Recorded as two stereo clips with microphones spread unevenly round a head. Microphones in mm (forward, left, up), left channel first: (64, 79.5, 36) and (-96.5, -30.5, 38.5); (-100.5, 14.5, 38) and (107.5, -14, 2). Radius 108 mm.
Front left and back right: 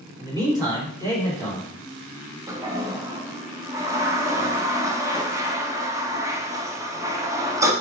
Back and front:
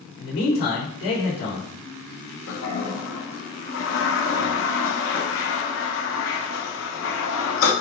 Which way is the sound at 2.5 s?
140° left.